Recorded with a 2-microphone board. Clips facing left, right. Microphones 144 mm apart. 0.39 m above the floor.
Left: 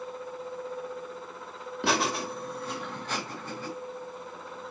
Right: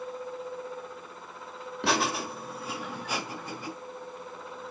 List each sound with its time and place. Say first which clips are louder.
1.8 s laughter: even; centre (ahead or behind), 1.6 m; by 3.7 s 15° right (ahead or behind), 3 m